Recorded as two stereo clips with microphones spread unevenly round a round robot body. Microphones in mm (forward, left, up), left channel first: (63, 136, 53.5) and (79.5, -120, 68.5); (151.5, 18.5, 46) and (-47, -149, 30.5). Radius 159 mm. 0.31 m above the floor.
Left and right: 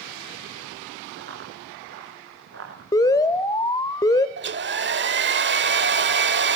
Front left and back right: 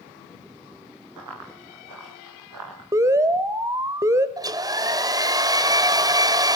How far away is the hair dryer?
About 1.3 m.